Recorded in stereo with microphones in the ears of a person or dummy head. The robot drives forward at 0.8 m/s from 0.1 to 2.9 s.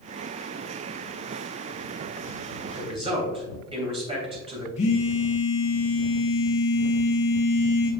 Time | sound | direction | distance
2.8 | a man speaking | 35° right (ahead or behind) | 2.5 m
4.8 | a phone buzzing | 40° left (ahead or behind) | 0.9 m